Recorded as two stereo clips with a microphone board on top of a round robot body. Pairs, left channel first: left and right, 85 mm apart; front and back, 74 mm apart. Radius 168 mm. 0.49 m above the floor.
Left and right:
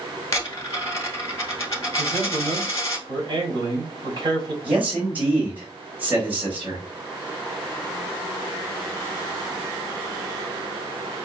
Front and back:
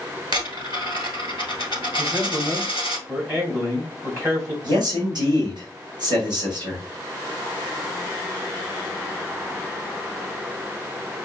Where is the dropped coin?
145° left, 1.5 m.